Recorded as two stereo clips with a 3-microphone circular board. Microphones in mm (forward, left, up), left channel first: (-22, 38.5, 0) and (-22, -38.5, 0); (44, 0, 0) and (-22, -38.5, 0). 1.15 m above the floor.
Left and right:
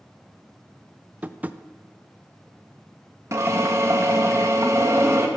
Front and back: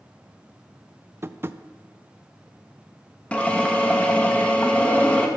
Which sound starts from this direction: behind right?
Tapping, at 1.2 s.